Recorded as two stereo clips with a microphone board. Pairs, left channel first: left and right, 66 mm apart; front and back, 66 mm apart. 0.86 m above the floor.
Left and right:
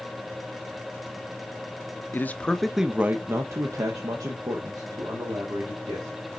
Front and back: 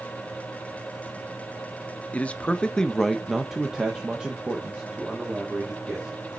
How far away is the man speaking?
About 0.6 m.